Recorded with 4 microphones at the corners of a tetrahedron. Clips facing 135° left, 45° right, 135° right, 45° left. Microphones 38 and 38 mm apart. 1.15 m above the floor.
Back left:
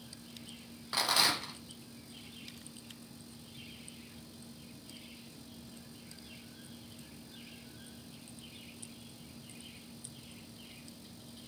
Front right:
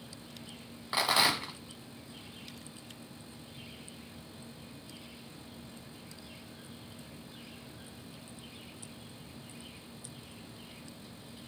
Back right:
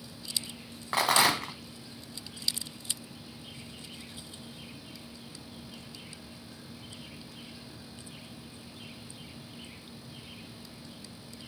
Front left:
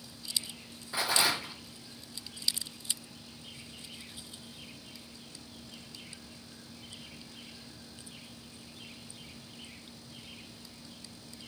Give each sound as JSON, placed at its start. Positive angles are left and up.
{"t": 0.9, "sound": "a rattle", "azimuth_deg": -120, "distance_m": 0.9}